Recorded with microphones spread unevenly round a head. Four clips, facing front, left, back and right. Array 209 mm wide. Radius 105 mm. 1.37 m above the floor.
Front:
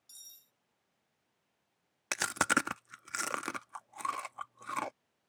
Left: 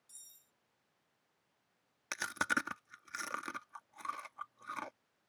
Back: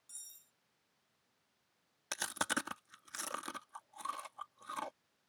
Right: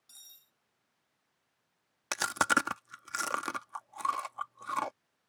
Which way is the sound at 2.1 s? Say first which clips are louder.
Right 7 dB, front 7 dB; 20° right.